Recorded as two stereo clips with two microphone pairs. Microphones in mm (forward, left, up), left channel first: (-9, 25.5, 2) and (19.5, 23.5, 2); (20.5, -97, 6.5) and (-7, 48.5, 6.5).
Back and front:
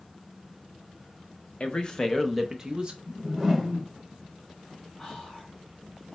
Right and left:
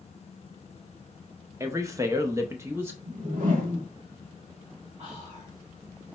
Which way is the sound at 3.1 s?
80° left.